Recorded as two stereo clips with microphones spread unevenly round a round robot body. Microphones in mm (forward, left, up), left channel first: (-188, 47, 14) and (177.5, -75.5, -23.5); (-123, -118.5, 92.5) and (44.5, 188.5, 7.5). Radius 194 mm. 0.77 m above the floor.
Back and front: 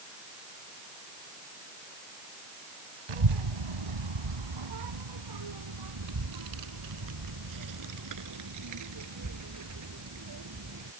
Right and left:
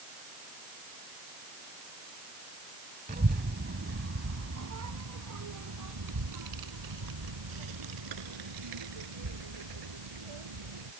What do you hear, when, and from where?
3.1 s a child speaking: 10° right; by 10.9 s 35° left